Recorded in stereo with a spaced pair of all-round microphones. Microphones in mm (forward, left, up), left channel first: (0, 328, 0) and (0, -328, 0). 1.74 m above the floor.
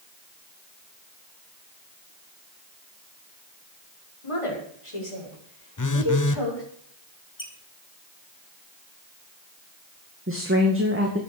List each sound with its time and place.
4.2 s a woman speaking: 50° left (ahead or behind), 6.5 m; by 6.6 s 40° left (ahead or behind), 7.5 m
5.8 s a phone buzzing: 30° left (ahead or behind), 0.8 m
7.4 s a squeak: 60° left (ahead or behind), 3 m
10.3 s a woman speaking: 20° right (ahead or behind), 2 m